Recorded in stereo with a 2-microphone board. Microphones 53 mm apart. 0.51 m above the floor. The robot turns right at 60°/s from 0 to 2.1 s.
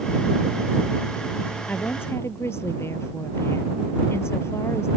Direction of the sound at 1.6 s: 25° left (ahead or behind).